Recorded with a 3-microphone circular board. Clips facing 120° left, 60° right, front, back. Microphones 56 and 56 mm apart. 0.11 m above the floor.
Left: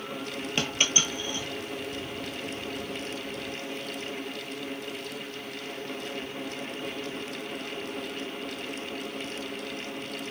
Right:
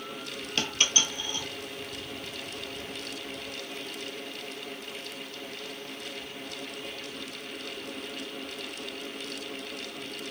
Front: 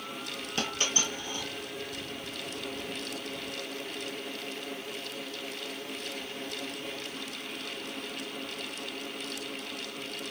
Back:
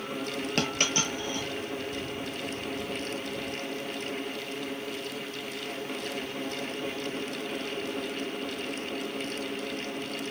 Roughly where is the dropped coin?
Behind.